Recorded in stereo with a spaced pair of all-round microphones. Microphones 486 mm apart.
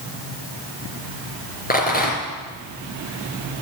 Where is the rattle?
20° left (ahead or behind), 3 m.